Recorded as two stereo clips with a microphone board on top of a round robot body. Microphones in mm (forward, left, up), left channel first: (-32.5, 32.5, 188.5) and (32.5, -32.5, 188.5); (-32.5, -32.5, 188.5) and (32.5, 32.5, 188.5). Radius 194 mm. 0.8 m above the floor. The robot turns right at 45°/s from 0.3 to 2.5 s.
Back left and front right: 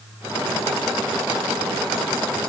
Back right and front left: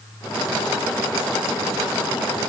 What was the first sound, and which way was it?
Only background noise.